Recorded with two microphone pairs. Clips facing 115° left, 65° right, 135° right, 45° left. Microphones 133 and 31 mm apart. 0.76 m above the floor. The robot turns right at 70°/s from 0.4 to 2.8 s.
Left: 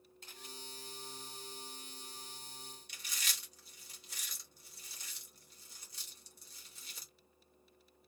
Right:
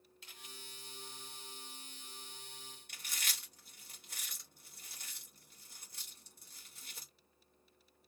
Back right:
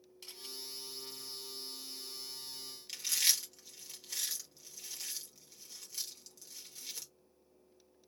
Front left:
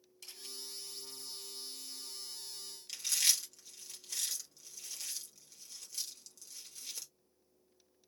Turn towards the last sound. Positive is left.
turn(degrees=-60)